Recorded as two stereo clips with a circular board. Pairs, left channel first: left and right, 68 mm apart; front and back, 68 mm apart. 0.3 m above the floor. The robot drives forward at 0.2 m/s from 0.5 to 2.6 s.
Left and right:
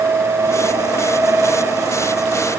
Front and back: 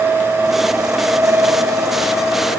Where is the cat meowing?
I don't hear a cat meowing.